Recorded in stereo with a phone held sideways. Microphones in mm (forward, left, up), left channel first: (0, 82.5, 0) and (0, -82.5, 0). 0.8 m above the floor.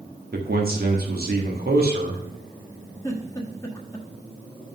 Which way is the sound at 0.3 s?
60° right (ahead or behind).